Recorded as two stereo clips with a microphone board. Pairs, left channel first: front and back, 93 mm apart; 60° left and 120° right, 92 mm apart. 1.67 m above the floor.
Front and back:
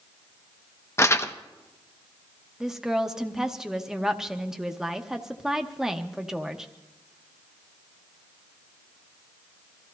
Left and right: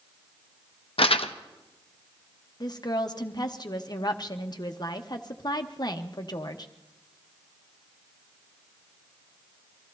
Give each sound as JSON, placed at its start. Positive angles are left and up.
{"t": 1.0, "sound": "crumpling", "azimuth_deg": 60, "distance_m": 0.6}
{"t": 2.6, "sound": "a woman speaking", "azimuth_deg": 95, "distance_m": 1.0}